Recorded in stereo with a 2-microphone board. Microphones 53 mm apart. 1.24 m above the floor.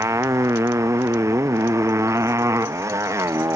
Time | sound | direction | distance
0.0 | a motorcycle | 65° right (ahead or behind) | ?